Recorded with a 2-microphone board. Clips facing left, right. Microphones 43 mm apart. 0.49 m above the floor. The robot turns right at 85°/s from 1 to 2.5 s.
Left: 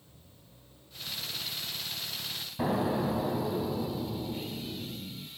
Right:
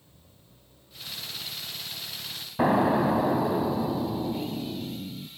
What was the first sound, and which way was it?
An explosion, 45° right (ahead or behind).